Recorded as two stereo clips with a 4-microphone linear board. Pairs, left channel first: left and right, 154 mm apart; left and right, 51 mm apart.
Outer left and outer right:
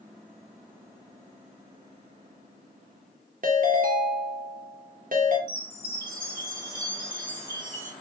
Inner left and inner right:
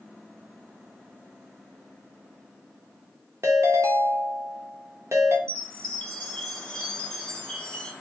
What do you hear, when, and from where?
3.4 s a ringtone: 65° right (ahead or behind), 0.8 m
5.5 s a chime: 15° left (ahead or behind), 1.0 m